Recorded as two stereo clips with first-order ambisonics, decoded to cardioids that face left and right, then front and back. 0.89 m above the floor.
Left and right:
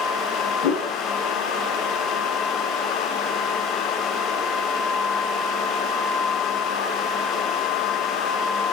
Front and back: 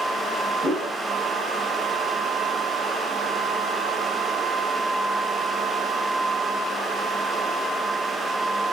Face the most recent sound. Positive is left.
turn(degrees=80)